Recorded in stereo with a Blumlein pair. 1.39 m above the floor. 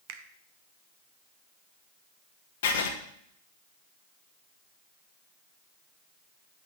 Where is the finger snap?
50° right, 1.0 m.